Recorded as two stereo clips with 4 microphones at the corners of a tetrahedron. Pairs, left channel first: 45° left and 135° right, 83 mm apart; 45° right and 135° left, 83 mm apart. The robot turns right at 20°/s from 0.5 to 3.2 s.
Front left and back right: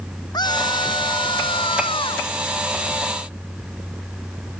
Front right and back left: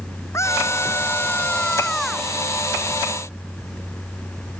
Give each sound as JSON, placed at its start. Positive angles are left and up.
{"t": 0.3, "sound": "a scream", "azimuth_deg": 10}